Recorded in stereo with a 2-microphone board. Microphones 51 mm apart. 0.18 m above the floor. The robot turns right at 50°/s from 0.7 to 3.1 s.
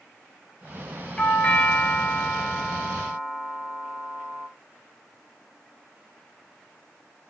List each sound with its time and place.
1.2 s a doorbell: 25° left (ahead or behind), 1.8 m; by 4.5 s centre (ahead or behind), 1.8 m